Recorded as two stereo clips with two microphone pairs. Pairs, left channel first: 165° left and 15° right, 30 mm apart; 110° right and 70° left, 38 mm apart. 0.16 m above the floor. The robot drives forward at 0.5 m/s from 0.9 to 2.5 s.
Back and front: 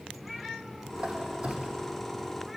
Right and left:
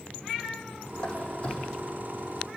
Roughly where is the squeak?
Ahead right.